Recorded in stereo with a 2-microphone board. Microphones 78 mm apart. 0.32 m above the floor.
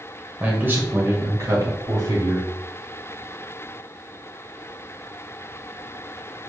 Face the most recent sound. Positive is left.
turn(degrees=-55)  # may be behind; listen again after turning